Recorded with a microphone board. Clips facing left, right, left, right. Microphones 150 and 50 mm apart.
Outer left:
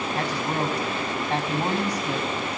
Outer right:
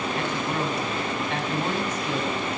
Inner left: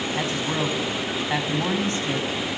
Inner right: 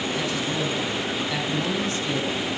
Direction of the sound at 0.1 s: 35° left (ahead or behind).